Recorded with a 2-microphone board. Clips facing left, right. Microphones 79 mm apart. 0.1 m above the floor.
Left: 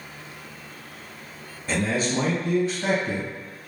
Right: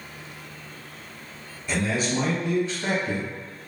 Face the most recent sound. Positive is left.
turn(degrees=30)  # may be behind; listen again after turning